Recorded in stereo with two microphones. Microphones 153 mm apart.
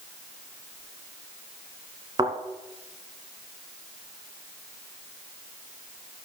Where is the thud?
30° right (ahead or behind), 2.5 m.